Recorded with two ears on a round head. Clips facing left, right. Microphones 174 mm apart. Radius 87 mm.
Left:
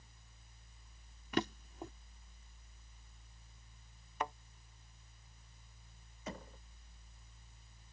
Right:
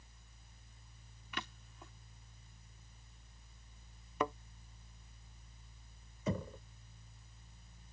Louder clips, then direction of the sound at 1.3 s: Left 12 dB; 35° left (ahead or behind).